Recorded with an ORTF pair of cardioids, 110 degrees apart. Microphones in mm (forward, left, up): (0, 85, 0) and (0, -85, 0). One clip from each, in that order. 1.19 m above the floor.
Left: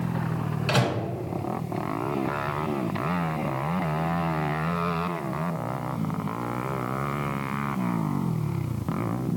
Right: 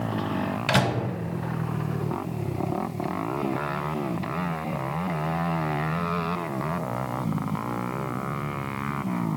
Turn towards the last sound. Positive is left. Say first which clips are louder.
# right 1 dB
turn(degrees=-30)